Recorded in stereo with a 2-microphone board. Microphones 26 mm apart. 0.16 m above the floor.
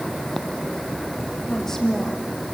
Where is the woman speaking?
15° left (ahead or behind), 5.5 m.